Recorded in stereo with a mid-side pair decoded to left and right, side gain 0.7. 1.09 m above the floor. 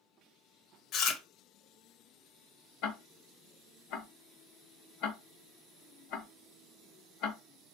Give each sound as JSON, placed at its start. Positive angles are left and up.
{"t": 0.9, "sound": "chewing", "azimuth_deg": 55, "distance_m": 0.6}
{"t": 2.8, "sound": "ticking", "azimuth_deg": 60, "distance_m": 0.6}